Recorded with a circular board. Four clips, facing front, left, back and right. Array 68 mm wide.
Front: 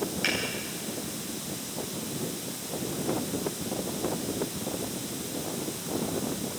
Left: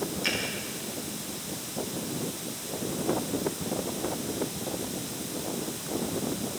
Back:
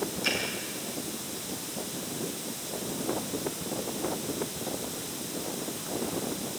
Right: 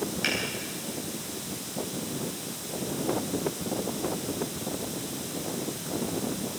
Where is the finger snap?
50° right, 9.5 m.